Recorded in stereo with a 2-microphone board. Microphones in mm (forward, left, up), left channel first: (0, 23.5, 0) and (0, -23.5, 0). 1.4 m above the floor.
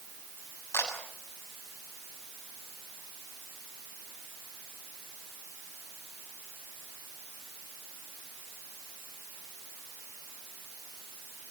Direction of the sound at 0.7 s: 85° left.